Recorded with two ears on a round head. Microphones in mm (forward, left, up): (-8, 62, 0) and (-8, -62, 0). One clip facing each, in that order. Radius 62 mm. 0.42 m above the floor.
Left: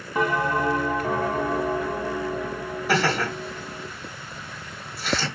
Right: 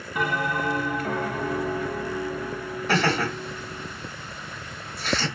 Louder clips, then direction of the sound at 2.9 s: Even; 5° left (ahead or behind).